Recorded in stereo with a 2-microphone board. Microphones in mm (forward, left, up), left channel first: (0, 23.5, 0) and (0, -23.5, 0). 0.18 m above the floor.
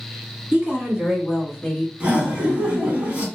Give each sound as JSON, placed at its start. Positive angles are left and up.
{"t": 0.5, "sound": "a woman speaking", "side_deg": -35, "distance_m": 1.9}
{"t": 2.0, "sound": "laughter", "side_deg": -35, "distance_m": 1.3}